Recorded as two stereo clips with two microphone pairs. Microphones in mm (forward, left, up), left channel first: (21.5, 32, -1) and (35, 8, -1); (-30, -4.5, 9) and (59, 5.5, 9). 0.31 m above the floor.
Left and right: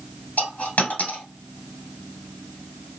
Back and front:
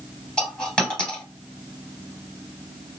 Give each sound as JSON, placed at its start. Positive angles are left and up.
{"t": 0.4, "sound": "a dropped coin", "azimuth_deg": 105, "distance_m": 1.6}